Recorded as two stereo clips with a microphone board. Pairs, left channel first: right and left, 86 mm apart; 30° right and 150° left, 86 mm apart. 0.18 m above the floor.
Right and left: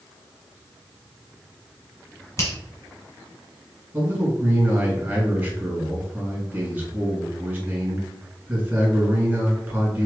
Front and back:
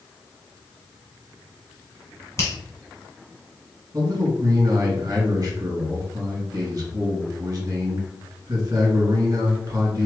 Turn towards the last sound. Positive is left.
turn(degrees=150)